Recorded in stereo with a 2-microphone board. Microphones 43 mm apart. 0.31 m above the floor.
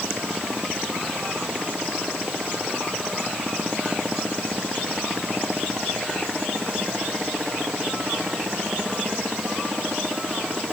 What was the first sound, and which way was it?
Only background noise.